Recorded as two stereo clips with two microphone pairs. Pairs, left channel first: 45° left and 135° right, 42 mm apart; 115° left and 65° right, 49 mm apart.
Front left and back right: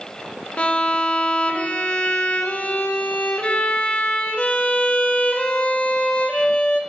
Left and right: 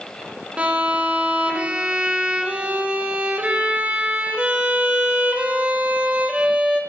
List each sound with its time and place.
0.6 s a violin: 5° right, 1.4 m